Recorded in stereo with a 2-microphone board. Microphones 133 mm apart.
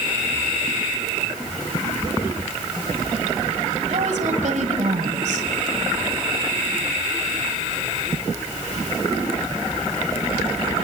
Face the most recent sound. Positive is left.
turn(degrees=-70)  # may be behind; listen again after turning